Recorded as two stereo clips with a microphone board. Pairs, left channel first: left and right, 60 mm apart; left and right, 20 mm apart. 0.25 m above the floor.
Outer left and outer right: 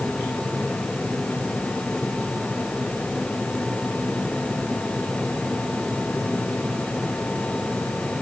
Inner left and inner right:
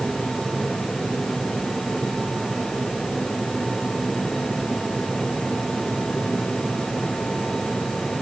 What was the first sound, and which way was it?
Only background noise.